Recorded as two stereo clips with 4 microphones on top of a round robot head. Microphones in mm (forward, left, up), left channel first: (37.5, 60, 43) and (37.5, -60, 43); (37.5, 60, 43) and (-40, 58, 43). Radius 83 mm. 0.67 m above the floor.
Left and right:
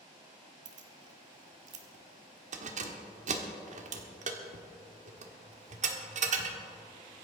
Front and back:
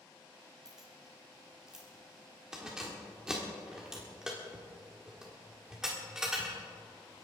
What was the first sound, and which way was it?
Keys jangling, 95° right.